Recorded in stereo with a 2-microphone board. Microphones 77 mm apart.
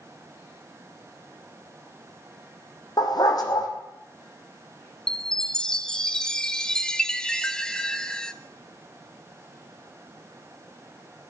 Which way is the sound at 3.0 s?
60° left (ahead or behind).